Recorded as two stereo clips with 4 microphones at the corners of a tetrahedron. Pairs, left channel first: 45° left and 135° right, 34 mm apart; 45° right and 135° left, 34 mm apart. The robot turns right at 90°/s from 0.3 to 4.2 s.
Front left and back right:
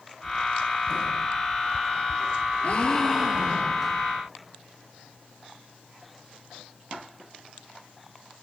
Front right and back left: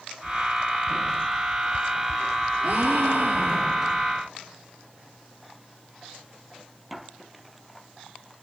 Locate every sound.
2.6 s a gasp: 95° left, 1.3 m; by 4.0 s 150° right, 1.3 m